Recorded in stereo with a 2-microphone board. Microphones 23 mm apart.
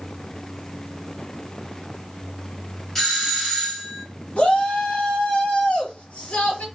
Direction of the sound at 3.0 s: 20° left (ahead or behind).